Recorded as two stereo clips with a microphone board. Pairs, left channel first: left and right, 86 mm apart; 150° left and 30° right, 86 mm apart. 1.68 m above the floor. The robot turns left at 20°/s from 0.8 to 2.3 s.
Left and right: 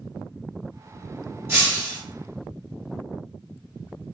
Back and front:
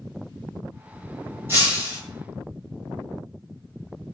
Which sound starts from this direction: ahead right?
Breaking glass, at 1.5 s.